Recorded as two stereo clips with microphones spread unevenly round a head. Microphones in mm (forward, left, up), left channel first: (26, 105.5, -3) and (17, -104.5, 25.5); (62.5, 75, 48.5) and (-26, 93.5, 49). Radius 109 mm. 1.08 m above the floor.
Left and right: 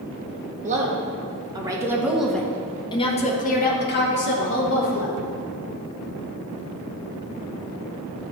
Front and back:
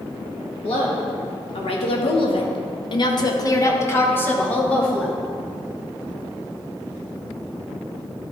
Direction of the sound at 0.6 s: 35° right.